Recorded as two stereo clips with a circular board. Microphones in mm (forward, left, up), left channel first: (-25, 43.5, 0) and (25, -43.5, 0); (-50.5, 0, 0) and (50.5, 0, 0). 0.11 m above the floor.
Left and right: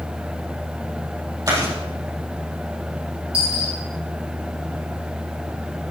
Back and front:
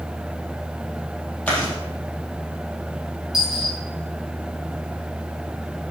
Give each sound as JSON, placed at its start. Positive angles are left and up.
{"t": 1.5, "sound": "chewing", "azimuth_deg": -105, "distance_m": 4.0}
{"t": 3.3, "sound": "a dropped coin", "azimuth_deg": -90, "distance_m": 4.0}